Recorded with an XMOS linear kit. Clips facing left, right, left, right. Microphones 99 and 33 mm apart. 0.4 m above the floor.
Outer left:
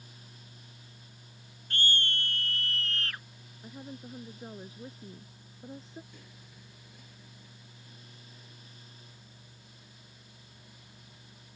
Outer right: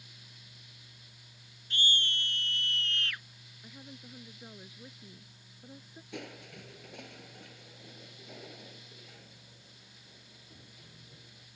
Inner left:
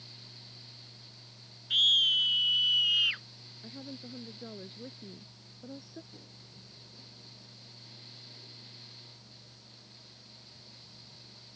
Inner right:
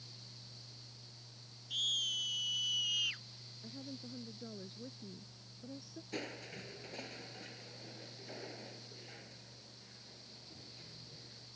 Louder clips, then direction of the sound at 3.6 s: Outer left 6 dB, inner left 4 dB; 25° left (ahead or behind).